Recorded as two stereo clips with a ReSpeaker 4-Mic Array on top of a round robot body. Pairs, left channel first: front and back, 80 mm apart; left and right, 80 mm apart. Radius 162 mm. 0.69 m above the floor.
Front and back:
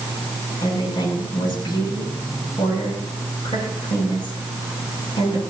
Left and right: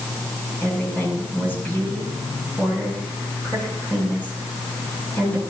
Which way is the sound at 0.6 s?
20° left.